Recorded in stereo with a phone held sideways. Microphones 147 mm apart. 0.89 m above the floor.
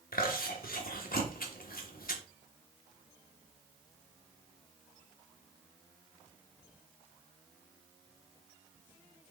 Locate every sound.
0.1 s chewing: 85° left, 1.3 m